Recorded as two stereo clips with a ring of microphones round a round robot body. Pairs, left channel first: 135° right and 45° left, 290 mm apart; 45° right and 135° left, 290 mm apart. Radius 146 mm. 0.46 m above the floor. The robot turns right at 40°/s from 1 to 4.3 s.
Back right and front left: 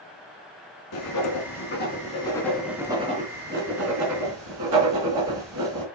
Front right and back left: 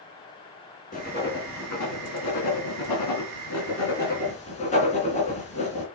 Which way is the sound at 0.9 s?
110° right.